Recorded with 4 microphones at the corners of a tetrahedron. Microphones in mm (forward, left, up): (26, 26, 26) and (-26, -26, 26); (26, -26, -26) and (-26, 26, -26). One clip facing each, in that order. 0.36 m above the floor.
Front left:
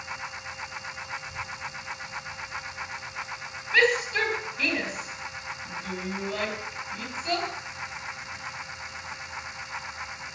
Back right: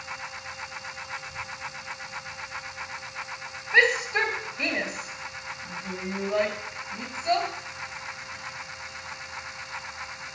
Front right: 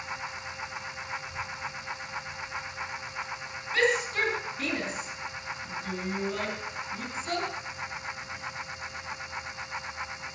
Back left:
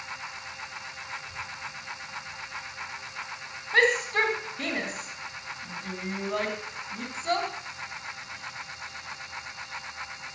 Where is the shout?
160° left, 3 m.